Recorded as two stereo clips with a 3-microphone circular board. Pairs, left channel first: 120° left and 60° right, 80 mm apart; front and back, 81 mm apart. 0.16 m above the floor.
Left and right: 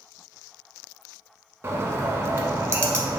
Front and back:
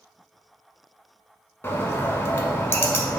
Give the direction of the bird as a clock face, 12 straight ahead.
1 o'clock.